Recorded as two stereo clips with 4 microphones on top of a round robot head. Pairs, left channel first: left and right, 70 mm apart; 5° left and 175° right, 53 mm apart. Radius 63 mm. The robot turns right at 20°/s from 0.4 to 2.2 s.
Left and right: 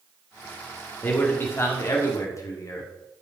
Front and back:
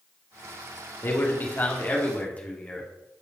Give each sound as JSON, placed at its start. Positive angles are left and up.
{"t": 1.0, "sound": "a man speaking", "azimuth_deg": 35, "distance_m": 2.0}